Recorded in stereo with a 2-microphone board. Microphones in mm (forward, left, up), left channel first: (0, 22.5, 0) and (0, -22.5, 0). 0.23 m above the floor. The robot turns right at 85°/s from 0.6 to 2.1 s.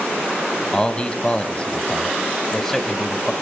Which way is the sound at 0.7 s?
15° left (ahead or behind).